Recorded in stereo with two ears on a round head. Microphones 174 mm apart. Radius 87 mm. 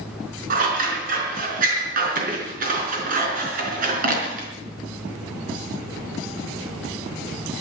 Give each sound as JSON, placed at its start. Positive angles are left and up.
{"t": 0.5, "sound": "scissors", "side_deg": -45, "distance_m": 4.5}